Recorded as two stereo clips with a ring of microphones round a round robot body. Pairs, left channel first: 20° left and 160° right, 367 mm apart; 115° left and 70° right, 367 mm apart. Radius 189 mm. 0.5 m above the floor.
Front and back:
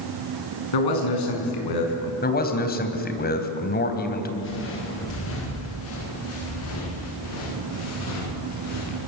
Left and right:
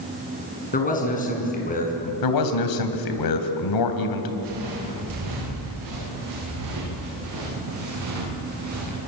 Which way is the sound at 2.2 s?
85° left.